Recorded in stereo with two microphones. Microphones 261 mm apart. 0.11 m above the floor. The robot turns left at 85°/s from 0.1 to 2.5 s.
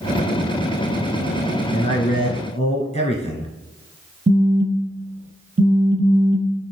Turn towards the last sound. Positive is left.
turn(degrees=-25)  # may be behind; listen again after turning